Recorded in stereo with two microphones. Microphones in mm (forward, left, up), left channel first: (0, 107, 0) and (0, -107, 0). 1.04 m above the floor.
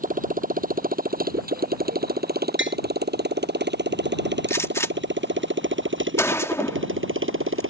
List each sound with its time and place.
0.0 s a motorcycle: 40° right (ahead or behind); by 7.7 s 70° right (ahead or behind)
2.6 s tapping: 65° right (ahead or behind)
4.5 s a gunshot: 15° left (ahead or behind)